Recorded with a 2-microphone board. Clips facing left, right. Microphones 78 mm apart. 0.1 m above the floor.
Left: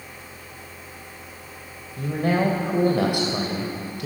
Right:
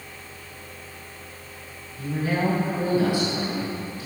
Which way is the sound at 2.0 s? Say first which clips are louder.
Left 3 dB; 70° left (ahead or behind).